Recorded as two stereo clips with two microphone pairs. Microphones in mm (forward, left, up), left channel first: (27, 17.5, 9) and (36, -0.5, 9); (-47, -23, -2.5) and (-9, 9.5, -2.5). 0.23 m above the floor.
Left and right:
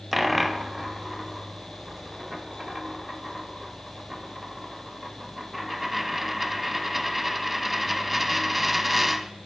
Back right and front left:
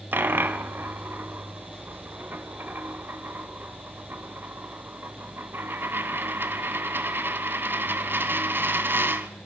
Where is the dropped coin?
20° left, 0.7 m.